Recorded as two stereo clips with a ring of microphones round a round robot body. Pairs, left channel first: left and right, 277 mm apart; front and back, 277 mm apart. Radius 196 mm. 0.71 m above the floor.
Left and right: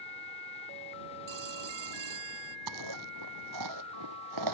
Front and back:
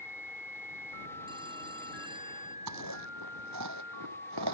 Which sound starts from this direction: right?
A phone ringing, at 1.3 s.